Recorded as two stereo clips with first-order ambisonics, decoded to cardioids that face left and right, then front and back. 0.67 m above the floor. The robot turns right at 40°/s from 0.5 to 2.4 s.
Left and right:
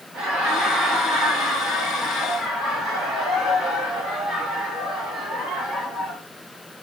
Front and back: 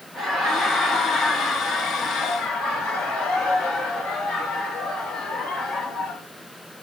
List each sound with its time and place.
0.1 s laughter: 105° right, 3 m; by 6.2 s 30° right, 3 m